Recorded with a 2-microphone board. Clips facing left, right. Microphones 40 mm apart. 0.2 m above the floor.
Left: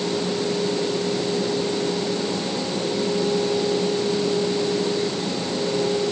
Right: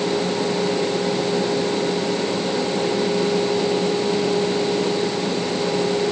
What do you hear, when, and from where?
Only background noise.